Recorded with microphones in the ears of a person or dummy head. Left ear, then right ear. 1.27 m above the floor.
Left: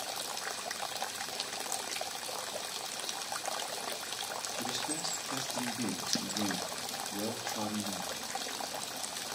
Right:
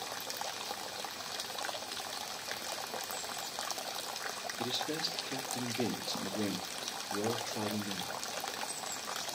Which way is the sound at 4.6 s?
35° right (ahead or behind).